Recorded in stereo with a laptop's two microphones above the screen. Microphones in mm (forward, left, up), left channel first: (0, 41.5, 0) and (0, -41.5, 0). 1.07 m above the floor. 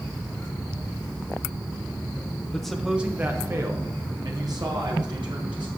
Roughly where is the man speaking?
Centre.